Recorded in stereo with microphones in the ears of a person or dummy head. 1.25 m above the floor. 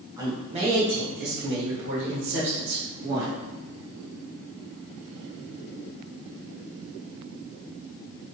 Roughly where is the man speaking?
Centre.